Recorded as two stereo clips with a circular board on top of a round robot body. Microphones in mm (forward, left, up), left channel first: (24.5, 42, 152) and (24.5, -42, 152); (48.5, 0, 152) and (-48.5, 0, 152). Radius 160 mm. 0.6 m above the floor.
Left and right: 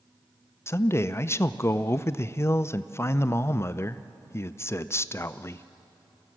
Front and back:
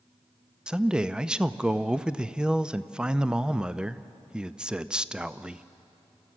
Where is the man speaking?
105° left, 0.6 m.